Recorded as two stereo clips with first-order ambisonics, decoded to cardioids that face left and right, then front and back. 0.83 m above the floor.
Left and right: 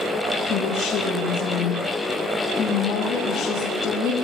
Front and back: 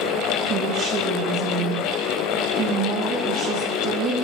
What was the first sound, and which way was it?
A woman speaking, 165° left.